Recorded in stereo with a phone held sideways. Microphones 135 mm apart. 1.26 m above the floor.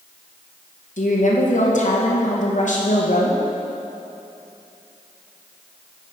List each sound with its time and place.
1.0 s a woman speaking: 65° left (ahead or behind), 0.9 m